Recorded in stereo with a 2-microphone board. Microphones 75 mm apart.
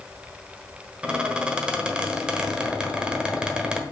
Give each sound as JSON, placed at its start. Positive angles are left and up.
{"t": 1.0, "sound": "a squeak", "side_deg": -15, "distance_m": 1.2}